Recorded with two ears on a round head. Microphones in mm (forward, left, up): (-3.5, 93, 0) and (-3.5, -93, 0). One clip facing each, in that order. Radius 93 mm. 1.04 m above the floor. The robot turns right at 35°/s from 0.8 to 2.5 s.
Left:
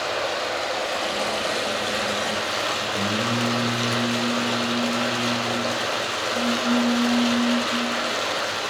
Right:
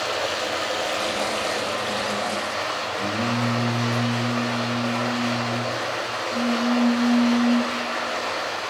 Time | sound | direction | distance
0.0 | running water | 5° right | 3 m
2.9 | singing | 75° left (ahead or behind) | 7.5 m